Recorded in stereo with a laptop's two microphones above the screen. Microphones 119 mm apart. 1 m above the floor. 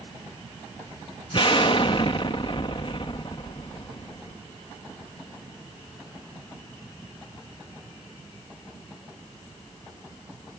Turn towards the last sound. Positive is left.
turn(degrees=45)  # may be behind; listen again after turning